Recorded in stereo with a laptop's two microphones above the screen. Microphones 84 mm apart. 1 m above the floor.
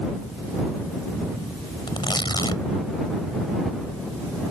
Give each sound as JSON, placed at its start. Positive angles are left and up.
{"t": 1.9, "sound": "tearing paper", "side_deg": 65}